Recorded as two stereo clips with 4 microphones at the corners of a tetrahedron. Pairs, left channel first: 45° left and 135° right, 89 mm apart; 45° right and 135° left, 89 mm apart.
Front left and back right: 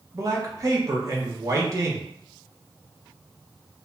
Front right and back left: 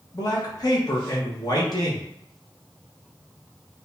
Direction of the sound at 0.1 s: 85° right.